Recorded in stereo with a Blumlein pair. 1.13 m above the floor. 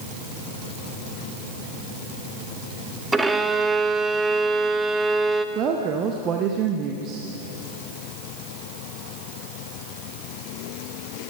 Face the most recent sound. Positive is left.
turn(degrees=-30)